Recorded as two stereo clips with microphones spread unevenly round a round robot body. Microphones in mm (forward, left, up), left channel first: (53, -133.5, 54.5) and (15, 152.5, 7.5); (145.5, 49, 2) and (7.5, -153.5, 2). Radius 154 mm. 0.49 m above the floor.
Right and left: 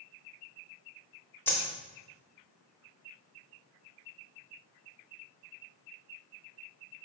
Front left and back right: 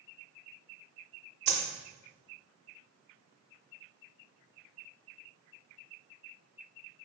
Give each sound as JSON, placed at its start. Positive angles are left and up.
{"t": 1.5, "sound": "a dropped coin", "azimuth_deg": -165, "distance_m": 0.6}